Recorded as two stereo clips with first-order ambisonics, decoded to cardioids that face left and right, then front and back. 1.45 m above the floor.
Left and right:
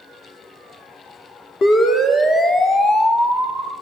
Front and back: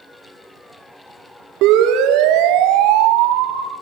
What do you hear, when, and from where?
1.6 s a siren: 155° left, 4.5 m; by 3.7 s 175° left, 6.5 m